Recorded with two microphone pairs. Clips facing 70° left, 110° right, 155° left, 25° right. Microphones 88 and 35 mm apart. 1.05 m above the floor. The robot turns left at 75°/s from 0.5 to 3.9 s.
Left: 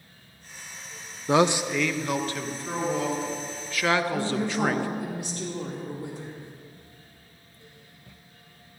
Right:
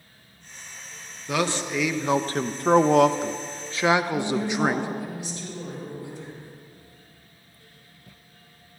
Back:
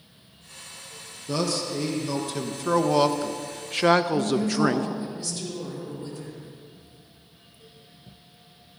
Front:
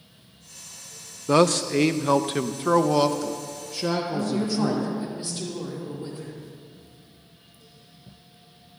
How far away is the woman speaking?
About 2.5 m.